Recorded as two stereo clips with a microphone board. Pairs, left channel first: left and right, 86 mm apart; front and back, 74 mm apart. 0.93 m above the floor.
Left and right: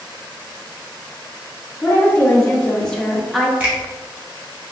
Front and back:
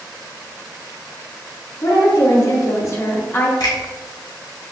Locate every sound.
1.8 s a woman speaking: 25° left, 1.3 m; by 3.5 s 5° right, 0.7 m
3.6 s a finger snap: 15° right, 1.4 m